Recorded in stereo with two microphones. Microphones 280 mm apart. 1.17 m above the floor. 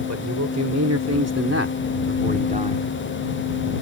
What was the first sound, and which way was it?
A man speaking, 85° right.